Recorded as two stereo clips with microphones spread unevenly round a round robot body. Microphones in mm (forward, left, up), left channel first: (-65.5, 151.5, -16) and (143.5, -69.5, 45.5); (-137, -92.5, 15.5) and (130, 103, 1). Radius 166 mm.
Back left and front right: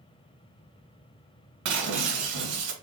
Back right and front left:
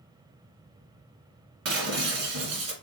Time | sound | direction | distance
1.6 | breaking glass | 15° right | 1.1 m